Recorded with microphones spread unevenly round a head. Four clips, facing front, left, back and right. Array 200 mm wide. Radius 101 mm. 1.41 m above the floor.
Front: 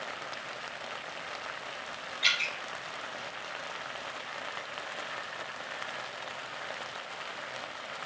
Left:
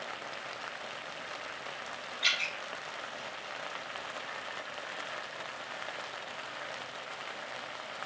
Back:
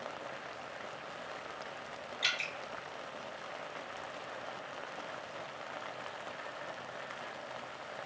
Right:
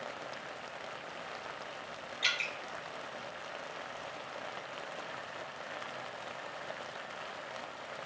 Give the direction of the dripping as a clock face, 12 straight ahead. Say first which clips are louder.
Left 1 dB, front 6 dB; 4 o'clock.